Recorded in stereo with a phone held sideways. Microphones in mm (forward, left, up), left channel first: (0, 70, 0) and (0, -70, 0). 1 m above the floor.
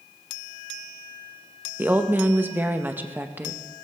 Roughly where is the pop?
I don't hear a pop.